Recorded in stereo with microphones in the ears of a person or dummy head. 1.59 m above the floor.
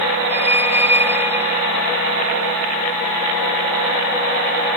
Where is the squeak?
10° right (ahead or behind).